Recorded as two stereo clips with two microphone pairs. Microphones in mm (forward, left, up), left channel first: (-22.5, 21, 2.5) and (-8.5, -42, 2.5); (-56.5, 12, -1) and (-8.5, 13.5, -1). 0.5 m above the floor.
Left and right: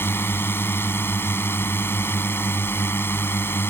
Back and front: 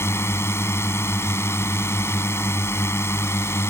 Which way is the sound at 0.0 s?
155° left.